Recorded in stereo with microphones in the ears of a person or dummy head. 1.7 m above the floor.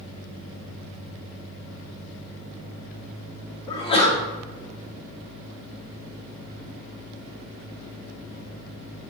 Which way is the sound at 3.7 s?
30° left (ahead or behind).